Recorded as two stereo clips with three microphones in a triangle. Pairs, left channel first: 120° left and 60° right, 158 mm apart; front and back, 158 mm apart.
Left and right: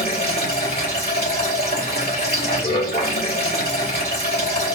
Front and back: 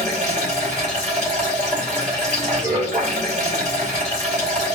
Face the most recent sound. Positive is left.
turn(degrees=140)